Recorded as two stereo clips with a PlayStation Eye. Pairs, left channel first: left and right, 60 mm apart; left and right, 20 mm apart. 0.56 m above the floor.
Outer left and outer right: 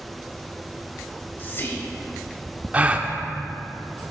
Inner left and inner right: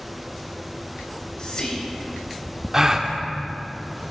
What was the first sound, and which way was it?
Whispering, 40° left (ahead or behind).